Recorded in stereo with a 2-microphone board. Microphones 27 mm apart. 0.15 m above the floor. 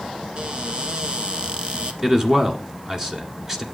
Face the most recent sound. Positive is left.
turn(degrees=-20)  # may be behind; listen again after turning